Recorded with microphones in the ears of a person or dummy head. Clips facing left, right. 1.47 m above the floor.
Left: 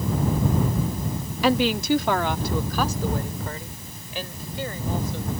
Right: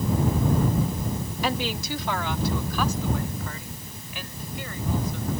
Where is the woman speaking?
65° left (ahead or behind); by 5.3 s 35° left (ahead or behind).